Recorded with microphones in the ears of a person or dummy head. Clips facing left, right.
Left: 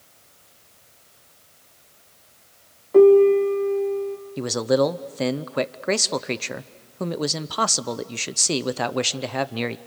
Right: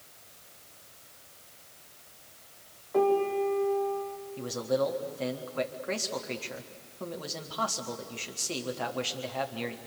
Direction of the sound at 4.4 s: 60° left (ahead or behind).